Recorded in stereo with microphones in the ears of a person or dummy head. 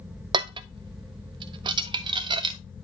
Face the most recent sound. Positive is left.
turn(degrees=-30)  # may be behind; listen again after turning